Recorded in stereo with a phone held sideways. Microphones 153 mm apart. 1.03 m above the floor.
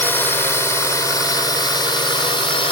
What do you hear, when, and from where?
0.0 s a drone: 15° left (ahead or behind); by 2.7 s 35° left (ahead or behind)